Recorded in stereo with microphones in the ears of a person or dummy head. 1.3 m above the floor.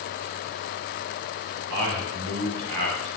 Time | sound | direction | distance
1.7 | a man speaking | 65° right (ahead or behind) | 5 m